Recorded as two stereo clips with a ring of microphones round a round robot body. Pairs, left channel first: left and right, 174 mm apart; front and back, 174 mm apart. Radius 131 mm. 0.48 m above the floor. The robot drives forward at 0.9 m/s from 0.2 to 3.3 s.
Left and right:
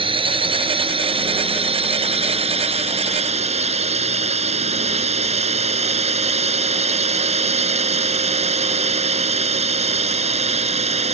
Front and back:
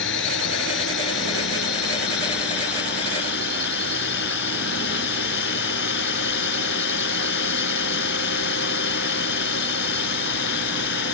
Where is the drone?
30° right; by 11.1 s 40° right.